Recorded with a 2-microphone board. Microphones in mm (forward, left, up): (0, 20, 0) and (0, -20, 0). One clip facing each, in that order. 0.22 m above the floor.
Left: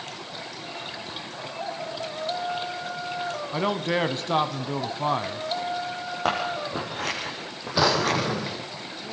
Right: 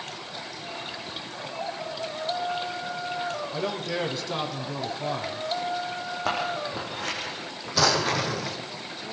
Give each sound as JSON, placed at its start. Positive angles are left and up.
{"t": 3.5, "sound": "a man speaking", "side_deg": 45, "distance_m": 1.3}
{"t": 6.2, "sound": "scissors", "side_deg": 65, "distance_m": 7.5}
{"t": 7.8, "sound": "a drawer", "side_deg": 20, "distance_m": 2.5}